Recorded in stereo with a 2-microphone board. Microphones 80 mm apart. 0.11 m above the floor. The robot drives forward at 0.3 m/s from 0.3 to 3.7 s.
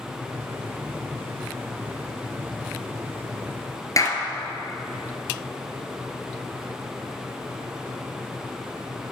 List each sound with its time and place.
4.0 s a clap: 40° left (ahead or behind), 1.4 m